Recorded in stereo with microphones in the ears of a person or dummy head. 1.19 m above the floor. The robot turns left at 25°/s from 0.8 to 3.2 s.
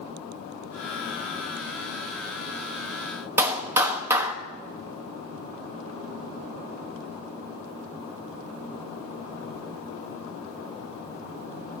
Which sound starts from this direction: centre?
A clap, at 3.4 s.